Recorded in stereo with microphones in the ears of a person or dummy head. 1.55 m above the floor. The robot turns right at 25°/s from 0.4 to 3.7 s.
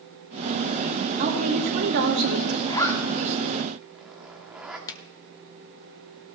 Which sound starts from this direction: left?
A finger snap, at 4.9 s.